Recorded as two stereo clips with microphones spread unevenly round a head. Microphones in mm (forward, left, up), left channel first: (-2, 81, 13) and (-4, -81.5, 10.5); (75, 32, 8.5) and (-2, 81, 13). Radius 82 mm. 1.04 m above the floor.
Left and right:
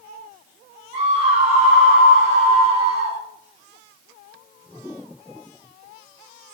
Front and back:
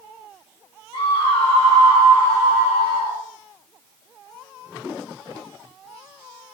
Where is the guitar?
I don't hear a guitar.